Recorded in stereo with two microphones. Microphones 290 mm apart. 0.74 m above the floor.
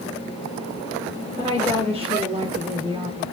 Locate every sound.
1.4 s a woman speaking: 20° right (ahead or behind), 4.5 m